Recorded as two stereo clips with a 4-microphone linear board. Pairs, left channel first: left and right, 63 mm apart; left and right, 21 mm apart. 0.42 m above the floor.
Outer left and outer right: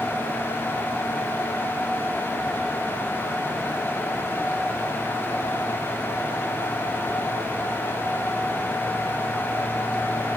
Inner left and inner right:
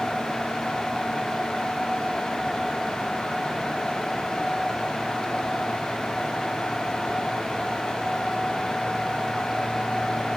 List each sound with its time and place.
Only background noise.